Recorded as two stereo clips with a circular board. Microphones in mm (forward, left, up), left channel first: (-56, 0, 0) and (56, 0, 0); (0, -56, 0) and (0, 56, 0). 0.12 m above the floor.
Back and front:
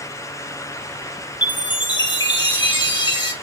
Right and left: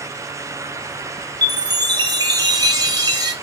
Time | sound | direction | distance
1.4 | a chime | 140° left | 0.5 m